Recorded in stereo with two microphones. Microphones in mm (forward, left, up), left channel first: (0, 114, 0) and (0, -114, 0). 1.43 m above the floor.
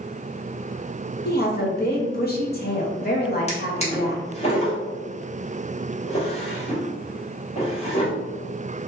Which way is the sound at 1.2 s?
40° left (ahead or behind).